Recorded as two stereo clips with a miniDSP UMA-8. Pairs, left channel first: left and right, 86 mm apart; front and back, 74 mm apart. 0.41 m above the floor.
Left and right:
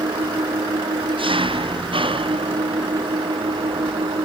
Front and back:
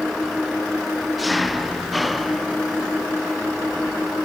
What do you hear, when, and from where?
0.0 s an engine running: 90° right